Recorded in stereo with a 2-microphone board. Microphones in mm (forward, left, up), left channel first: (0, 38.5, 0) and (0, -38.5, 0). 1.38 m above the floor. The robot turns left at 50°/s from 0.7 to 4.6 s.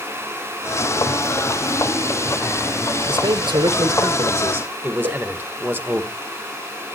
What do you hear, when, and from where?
3.1 s a man speaking: 80° right, 1.4 m; by 6.0 s 155° right, 1.4 m
5.0 s a whoosh: 65° right (ahead or behind), 3.5 m